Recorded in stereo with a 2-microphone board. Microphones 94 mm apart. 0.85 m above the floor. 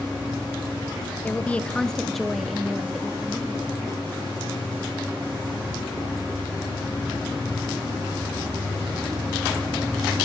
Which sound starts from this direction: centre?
A woman speaking, at 1.2 s.